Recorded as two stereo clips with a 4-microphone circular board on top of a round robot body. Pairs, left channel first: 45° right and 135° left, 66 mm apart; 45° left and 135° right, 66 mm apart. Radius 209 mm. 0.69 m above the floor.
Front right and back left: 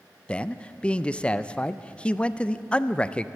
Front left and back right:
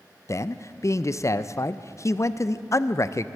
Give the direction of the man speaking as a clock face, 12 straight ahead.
11 o'clock.